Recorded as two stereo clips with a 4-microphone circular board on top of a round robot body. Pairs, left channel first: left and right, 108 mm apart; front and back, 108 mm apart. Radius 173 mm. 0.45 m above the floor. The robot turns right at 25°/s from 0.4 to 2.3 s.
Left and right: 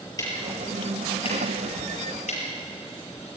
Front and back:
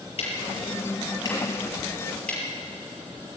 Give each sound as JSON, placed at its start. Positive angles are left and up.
{"t": 0.2, "sound": "ticking", "azimuth_deg": 35, "distance_m": 6.5}